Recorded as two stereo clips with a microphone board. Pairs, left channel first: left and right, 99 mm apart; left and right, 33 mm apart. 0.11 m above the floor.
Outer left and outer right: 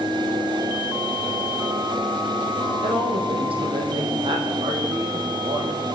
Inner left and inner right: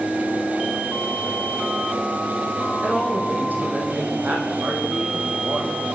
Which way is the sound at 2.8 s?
65° right (ahead or behind).